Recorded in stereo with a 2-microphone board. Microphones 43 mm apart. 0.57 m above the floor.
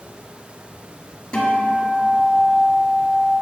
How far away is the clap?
I don't hear a clap.